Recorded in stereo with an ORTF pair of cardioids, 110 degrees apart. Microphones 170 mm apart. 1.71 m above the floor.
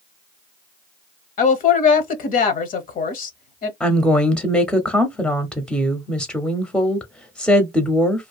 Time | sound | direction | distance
1.4 | a woman speaking | 55° left | 0.8 m
3.8 | a woman speaking | 5° left | 0.7 m